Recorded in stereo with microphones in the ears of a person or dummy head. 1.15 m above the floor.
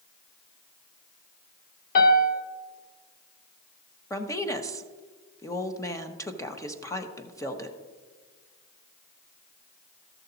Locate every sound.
1.9 s a piano: 55° left (ahead or behind), 1.0 m
4.1 s a woman speaking: 20° left (ahead or behind), 1.0 m